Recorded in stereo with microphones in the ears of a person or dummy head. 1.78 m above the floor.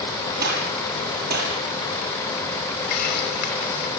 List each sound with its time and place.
0.4 s a gunshot: 50° right (ahead or behind), 8 m
2.9 s a hiss: 55° left (ahead or behind), 3 m